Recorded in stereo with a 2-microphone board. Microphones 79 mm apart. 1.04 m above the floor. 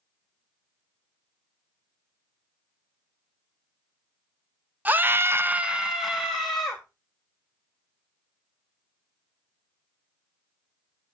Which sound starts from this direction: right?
A scream, at 4.8 s.